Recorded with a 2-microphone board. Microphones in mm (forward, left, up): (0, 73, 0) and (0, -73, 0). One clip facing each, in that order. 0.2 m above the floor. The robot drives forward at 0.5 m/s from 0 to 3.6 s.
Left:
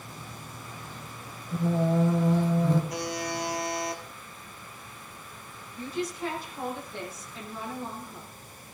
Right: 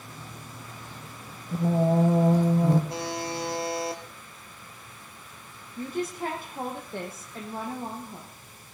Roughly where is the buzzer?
Right.